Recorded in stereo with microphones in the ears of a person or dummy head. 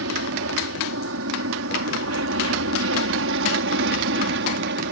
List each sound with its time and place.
0.0 s an aircraft: 65° right (ahead or behind); by 4.9 s 60° right (ahead or behind)